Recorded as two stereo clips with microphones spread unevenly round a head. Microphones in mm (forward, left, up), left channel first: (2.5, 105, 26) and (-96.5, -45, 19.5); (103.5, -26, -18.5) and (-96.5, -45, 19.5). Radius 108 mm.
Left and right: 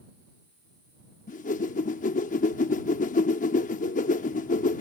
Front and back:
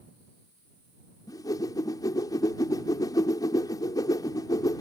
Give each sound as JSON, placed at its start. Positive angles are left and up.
{"t": 1.3, "sound": "a whoosh", "azimuth_deg": 85}